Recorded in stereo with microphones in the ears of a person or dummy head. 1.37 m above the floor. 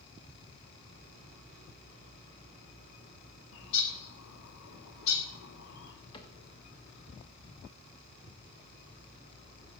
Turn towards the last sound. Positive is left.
turn(degrees=20)  # may be behind; listen again after turning